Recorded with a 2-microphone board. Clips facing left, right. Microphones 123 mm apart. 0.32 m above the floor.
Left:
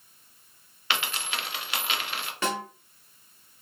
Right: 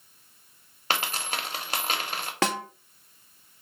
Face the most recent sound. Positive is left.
turn(degrees=-80)